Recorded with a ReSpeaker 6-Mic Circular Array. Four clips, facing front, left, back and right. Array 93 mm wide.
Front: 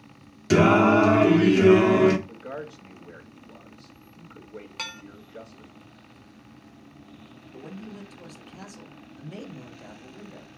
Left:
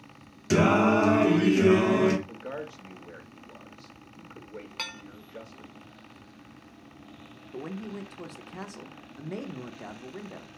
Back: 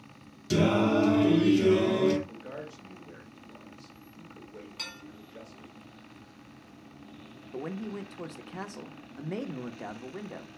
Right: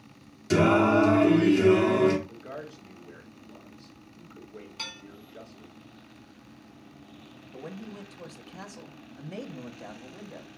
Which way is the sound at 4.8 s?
45° left.